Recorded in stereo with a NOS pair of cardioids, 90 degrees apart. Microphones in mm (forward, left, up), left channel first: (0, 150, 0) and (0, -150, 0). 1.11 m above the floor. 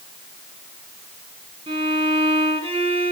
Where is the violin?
20° right, 9.5 m.